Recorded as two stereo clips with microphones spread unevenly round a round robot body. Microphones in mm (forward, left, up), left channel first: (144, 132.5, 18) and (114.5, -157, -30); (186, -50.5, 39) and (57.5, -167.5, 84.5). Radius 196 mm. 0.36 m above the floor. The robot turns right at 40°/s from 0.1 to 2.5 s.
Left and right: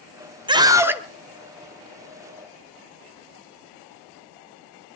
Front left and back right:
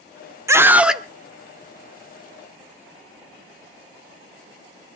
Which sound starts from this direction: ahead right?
A scream, at 0.5 s.